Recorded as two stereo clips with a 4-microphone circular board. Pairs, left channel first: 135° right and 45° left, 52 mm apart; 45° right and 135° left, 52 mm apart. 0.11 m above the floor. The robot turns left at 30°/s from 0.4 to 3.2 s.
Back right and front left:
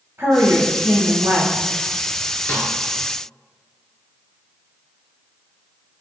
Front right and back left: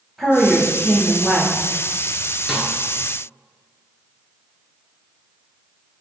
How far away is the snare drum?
About 1.0 m.